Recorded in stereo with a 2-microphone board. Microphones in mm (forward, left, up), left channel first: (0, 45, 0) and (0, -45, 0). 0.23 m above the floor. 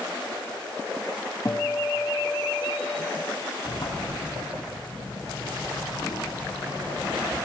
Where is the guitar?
35° left (ahead or behind), 1.5 m.